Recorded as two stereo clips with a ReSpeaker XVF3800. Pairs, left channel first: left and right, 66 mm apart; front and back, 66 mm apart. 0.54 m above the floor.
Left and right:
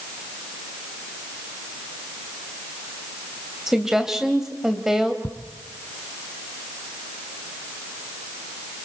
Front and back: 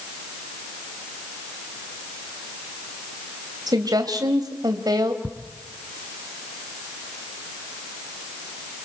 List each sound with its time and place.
3.7 s a woman speaking: 175° right, 2 m
5.2 s ticking: 120° left, 3 m